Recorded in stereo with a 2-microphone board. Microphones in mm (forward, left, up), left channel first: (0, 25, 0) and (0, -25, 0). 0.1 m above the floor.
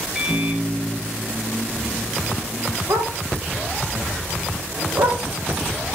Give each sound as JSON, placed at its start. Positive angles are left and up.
{"t": 0.1, "sound": "a microwave", "side_deg": -10, "distance_m": 2.0}
{"t": 2.9, "sound": "a dog barking", "side_deg": -80, "distance_m": 3.0}